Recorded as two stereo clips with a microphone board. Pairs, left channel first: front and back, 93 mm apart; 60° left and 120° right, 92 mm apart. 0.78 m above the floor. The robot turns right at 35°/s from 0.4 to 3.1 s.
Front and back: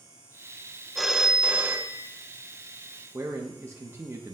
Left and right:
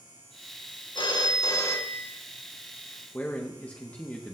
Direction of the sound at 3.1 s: 130° left.